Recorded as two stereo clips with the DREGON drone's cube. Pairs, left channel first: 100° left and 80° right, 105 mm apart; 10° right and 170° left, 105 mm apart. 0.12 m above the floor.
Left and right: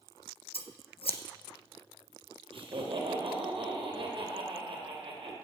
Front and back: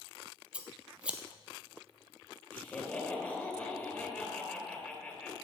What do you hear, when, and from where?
0.5 s scissors: 90° left, 0.8 m
2.5 s laughter: 80° right, 2.5 m